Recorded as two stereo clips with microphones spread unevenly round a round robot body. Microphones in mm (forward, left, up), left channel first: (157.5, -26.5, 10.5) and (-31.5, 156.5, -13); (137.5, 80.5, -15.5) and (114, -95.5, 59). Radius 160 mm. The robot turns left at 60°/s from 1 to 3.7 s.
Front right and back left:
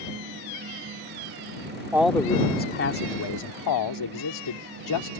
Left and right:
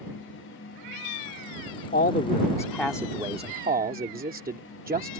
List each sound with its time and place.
1.9 s a man speaking: 55° left; by 5.2 s 50° right